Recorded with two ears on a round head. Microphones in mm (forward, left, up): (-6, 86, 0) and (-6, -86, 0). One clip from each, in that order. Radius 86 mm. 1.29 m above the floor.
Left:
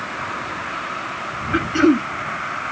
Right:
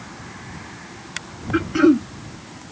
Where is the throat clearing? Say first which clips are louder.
Even; 20° left (ahead or behind).